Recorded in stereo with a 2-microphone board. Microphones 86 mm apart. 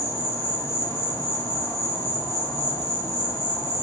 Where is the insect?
30° left (ahead or behind), 1.1 m.